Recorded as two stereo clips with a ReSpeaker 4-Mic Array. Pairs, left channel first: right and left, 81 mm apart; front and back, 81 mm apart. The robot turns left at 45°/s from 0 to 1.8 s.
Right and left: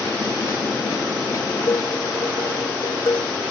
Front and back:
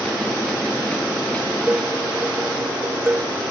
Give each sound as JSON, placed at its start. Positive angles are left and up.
{"t": 1.7, "sound": "dishes clattering", "azimuth_deg": -110}